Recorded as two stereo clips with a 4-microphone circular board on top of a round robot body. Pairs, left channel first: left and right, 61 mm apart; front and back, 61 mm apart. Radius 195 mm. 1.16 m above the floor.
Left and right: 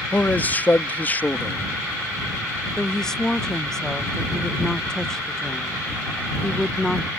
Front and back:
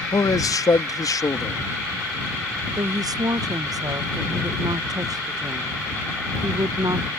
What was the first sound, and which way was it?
A man speaking, 25° left.